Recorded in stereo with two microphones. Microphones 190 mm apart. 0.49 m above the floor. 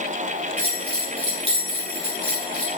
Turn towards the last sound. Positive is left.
turn(degrees=-35)  # may be behind; listen again after turning